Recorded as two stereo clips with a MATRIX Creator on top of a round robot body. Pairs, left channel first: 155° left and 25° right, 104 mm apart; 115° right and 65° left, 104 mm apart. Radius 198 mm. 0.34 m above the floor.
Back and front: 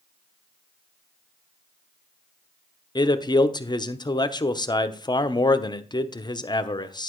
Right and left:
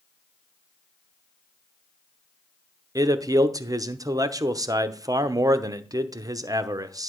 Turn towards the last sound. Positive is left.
turn(degrees=115)